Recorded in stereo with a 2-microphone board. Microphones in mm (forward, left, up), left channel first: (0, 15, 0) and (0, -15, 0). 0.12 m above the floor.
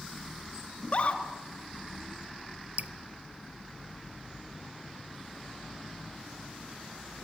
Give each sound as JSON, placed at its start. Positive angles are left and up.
{"t": 0.8, "sound": "a scream", "side_deg": 45, "distance_m": 1.9}
{"t": 2.8, "sound": "dripping", "side_deg": -60, "distance_m": 0.8}